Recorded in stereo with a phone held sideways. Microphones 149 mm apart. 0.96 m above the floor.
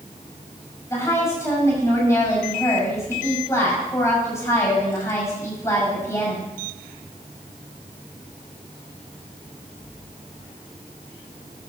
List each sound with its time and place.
0.9 s a woman speaking: 20° left (ahead or behind), 6.5 m